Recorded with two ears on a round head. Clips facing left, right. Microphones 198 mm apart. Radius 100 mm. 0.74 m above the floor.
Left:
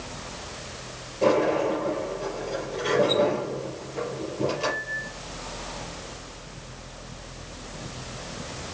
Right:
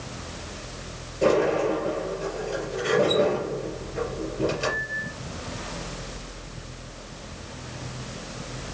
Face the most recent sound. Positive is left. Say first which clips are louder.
# right 1 dB
turn(degrees=-15)  # may be behind; listen again after turning